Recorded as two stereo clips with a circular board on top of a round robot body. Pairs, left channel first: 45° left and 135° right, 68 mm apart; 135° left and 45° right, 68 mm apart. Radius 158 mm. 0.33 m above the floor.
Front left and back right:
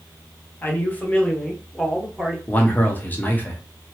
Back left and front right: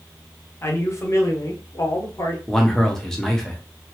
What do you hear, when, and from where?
0.6 s a man speaking: 95° left, 1.8 m; by 2.4 s 145° left, 1.7 m
2.5 s a man speaking: 60° left, 1.5 m